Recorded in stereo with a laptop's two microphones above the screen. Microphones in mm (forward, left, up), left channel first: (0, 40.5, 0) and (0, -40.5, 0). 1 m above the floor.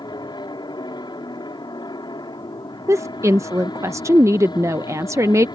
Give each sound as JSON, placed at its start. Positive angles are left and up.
{"t": 0.0, "sound": "an aircraft", "side_deg": 60}
{"t": 2.9, "sound": "a woman speaking", "side_deg": -35}